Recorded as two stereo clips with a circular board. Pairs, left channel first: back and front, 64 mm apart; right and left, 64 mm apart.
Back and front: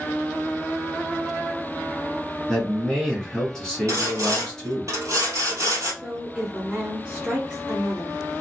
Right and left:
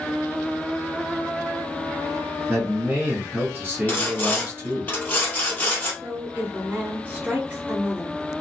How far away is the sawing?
About 1.6 m.